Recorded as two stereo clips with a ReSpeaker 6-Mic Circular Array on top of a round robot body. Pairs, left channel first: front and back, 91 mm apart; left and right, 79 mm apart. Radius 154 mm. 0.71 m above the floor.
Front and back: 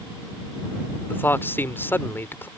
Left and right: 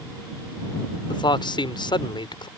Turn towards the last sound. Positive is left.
turn(degrees=70)